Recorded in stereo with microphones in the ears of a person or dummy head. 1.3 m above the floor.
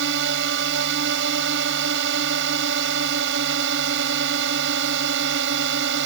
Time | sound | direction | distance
0.0 | a drone | 65° right (ahead or behind) | ?